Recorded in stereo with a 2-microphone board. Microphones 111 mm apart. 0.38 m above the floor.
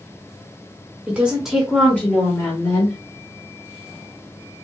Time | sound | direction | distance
1.1 | a woman speaking | 15° right (ahead or behind) | 1.6 m